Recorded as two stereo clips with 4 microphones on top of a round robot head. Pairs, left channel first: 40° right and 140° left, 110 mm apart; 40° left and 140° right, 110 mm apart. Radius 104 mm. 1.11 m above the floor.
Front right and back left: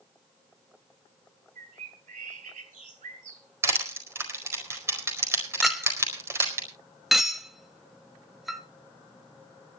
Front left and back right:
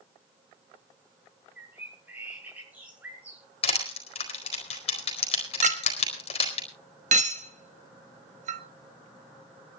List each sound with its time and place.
1.6 s a bird: 140° left, 6.5 m
3.6 s crushing: 75° left, 4.5 m
5.6 s a clink: 130° right, 1.4 m